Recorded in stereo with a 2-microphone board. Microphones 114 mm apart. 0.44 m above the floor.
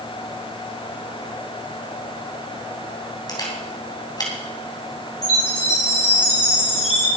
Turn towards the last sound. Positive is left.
turn(degrees=80)